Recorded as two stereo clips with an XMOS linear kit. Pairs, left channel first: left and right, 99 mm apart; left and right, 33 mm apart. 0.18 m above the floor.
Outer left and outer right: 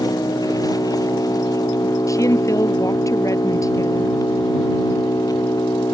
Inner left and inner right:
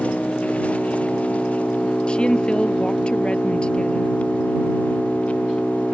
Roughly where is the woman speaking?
Left.